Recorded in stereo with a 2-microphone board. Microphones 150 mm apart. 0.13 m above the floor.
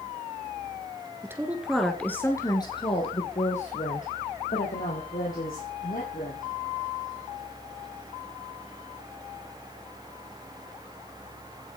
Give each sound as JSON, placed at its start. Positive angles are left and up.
{"t": 1.2, "sound": "a woman speaking", "side_deg": -15, "distance_m": 2.0}